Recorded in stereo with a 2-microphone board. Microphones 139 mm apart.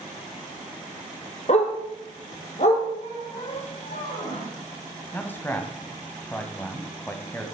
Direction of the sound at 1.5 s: 55° left (ahead or behind).